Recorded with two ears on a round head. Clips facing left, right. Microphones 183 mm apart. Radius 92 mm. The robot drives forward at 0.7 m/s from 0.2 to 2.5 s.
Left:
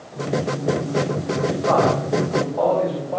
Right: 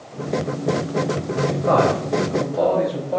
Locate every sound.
1.7 s a man speaking: 35° right (ahead or behind), 4.5 m